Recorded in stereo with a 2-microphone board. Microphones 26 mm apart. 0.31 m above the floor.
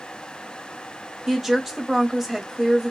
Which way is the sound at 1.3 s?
10° right (ahead or behind).